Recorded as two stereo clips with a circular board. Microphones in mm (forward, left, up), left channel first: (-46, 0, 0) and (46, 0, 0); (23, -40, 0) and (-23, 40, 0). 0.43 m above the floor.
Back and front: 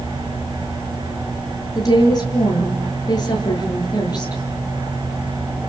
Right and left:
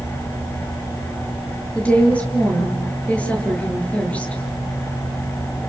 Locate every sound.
1.8 s a woman speaking: 135° right, 8.5 m